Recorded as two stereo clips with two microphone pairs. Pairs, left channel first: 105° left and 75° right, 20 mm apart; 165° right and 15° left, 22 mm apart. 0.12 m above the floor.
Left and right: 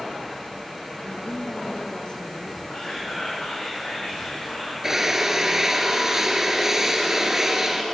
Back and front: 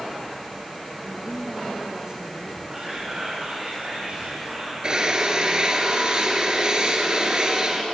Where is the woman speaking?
90° left, 2.5 m; by 2.6 s 55° left, 3.5 m.